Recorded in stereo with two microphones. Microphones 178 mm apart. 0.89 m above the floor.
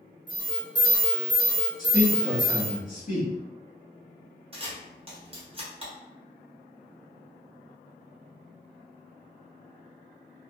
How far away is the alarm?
About 0.6 m.